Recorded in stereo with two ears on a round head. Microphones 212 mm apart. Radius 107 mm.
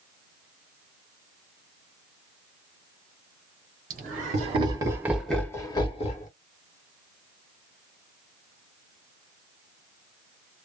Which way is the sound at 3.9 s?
40° right (ahead or behind).